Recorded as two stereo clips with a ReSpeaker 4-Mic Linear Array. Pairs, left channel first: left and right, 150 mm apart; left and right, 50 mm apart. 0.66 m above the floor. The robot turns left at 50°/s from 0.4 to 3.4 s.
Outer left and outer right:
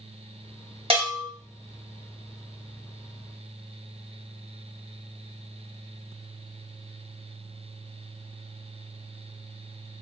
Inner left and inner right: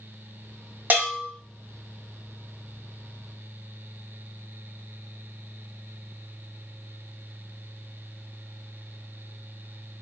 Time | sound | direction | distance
0.9 | a bell | 40° right (ahead or behind) | 1.1 m